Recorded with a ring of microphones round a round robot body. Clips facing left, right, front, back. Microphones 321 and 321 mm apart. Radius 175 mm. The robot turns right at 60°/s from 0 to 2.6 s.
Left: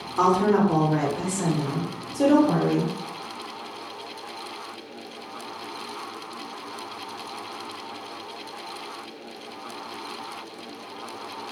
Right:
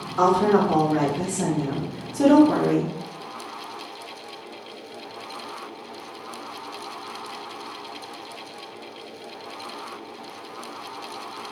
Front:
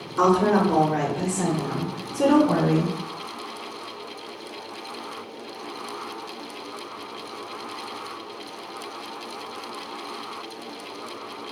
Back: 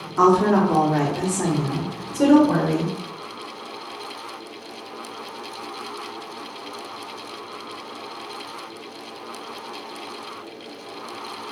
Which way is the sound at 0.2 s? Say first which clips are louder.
Right 1 dB, back 2 dB; 130° left.